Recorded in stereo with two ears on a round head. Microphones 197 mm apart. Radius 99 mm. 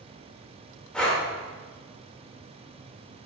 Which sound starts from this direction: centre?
Breathing, at 0.9 s.